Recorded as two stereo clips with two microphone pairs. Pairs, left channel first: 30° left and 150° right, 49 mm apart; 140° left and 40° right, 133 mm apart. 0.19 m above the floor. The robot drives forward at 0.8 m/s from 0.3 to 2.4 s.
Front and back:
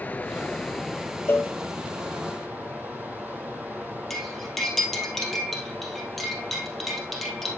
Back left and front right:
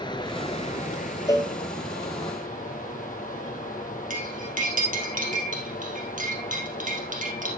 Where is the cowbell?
75° left, 0.8 m; by 1.5 s 90° left, 0.7 m.